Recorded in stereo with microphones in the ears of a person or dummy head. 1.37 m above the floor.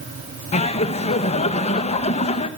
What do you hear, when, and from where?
0.5 s laughter: 35° left (ahead or behind), 1.7 m